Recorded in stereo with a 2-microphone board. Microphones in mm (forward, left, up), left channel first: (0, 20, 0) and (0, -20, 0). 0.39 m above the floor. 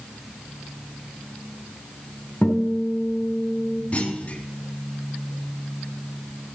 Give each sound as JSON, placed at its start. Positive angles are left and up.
{"t": 2.4, "sound": "a guitar", "side_deg": 30, "distance_m": 3.0}
{"t": 3.9, "sound": "a clunk", "side_deg": 35, "distance_m": 2.5}